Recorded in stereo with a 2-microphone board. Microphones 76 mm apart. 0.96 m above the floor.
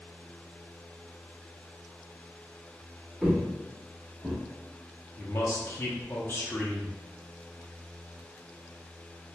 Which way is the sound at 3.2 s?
10° right (ahead or behind).